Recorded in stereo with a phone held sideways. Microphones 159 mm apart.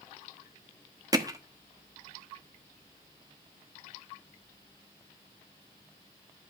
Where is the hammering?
25° right (ahead or behind), 1.0 m.